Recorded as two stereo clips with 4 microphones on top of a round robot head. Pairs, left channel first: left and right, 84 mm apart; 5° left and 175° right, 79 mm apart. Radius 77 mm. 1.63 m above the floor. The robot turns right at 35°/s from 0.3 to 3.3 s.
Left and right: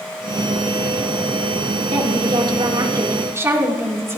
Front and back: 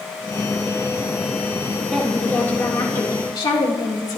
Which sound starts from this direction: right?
A woman speaking, at 1.9 s.